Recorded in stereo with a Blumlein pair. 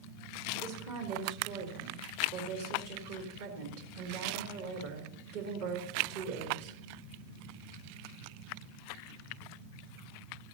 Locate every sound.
0.6 s a woman speaking: 50° right, 3.5 m